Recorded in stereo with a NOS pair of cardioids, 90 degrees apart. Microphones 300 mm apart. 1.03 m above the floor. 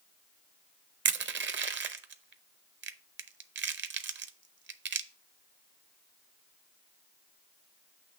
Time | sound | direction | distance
1.1 | crushing | 40° right | 0.7 m